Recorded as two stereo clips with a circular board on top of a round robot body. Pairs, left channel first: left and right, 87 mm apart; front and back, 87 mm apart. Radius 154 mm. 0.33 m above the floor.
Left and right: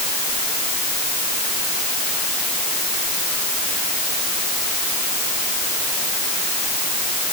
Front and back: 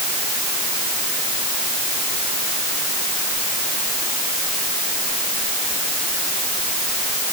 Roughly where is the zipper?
No zipper in this recording.